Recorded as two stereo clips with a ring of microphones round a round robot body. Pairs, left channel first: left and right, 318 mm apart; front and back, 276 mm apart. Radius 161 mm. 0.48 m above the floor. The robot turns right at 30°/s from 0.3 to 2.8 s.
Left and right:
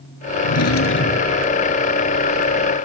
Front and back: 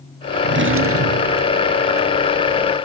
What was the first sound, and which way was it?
A drawer, 130° left.